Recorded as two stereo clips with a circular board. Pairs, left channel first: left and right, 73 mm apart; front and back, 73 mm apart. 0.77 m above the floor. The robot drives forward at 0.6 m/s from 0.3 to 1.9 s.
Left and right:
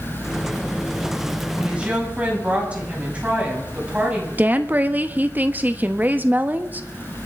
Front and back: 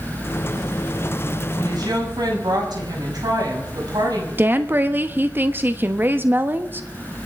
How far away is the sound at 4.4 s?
About 1.0 m.